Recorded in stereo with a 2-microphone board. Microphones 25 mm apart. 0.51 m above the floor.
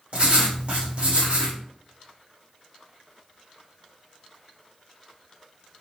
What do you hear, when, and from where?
0.1 s writing: 55° right (ahead or behind), 1.6 m